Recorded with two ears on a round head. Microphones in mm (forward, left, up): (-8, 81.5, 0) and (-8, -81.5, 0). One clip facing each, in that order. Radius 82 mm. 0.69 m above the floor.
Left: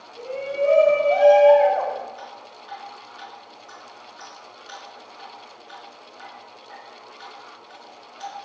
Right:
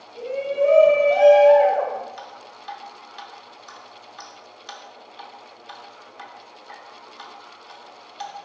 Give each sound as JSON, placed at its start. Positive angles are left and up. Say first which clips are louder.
{"t": 0.1, "sound": "a shout", "louder": "right 3 dB", "side_deg": -45, "distance_m": 4.0}
{"t": 2.2, "sound": "dripping", "louder": "even", "side_deg": -85, "distance_m": 3.0}